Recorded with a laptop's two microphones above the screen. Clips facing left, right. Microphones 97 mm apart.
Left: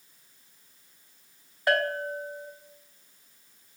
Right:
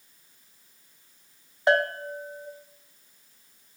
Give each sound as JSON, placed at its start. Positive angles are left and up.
{"t": 1.7, "sound": "a bell", "side_deg": -20, "distance_m": 0.5}